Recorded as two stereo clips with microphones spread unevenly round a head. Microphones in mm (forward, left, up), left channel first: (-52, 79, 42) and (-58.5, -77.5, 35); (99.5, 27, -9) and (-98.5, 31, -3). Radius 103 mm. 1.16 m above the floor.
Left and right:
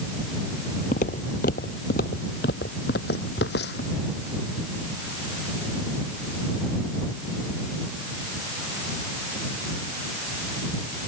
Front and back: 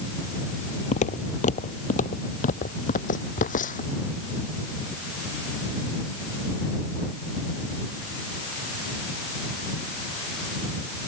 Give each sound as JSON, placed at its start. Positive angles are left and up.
{"t": 0.9, "sound": "footsteps", "azimuth_deg": 45}